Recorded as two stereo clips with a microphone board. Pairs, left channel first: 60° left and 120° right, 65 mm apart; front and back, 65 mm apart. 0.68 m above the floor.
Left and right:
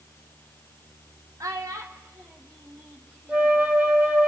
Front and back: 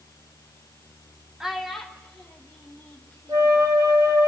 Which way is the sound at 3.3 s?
170° left.